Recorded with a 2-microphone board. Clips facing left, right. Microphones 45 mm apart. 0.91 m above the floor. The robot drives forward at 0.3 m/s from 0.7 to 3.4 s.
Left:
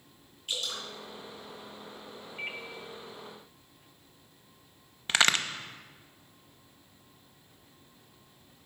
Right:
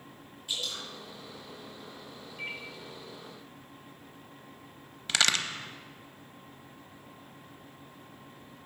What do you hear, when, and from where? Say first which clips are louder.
0.5 s dripping: even; 55° left (ahead or behind), 3.5 m; by 0.8 s 60° left (ahead or behind), 3.5 m
2.4 s a microwave: left 1 dB; 50° left (ahead or behind), 0.8 m; by 2.6 s 55° left (ahead or behind), 0.8 m
5.1 s a crack: left 2 dB; 25° left (ahead or behind), 0.6 m